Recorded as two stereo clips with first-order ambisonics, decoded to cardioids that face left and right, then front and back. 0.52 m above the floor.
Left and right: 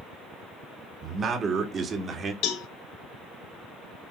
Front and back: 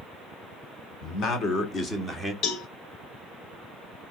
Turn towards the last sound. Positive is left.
turn(degrees=50)